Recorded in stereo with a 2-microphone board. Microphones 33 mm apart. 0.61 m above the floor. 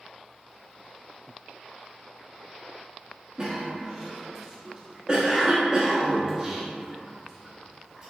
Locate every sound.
3.4 s a cough: 25° right (ahead or behind), 0.6 m